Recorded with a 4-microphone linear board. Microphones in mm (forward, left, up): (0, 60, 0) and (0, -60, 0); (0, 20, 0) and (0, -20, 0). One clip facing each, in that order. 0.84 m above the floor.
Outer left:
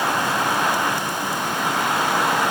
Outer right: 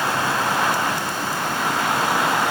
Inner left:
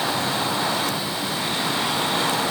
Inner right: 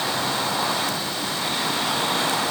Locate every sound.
Only background noise.